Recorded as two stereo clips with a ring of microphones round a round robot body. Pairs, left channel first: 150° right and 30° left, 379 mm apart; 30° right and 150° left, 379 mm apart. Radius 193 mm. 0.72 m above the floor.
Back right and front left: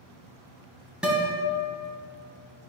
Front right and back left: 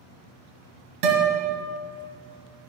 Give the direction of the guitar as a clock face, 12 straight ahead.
8 o'clock.